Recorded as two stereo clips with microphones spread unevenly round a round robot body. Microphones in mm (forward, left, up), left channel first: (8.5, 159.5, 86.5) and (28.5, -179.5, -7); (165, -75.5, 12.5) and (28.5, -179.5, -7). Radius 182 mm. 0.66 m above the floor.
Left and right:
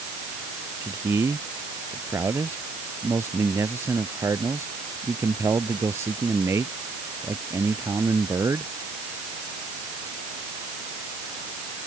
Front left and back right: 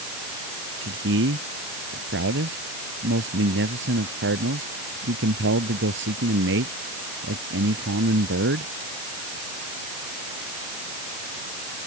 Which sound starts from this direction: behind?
A man speaking, at 0.8 s.